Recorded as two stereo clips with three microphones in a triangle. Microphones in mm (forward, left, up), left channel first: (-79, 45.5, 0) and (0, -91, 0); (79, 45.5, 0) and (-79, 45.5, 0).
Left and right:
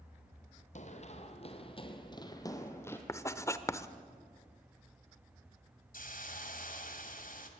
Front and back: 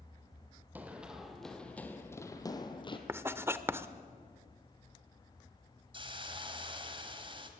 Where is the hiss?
125° left, 2.0 m.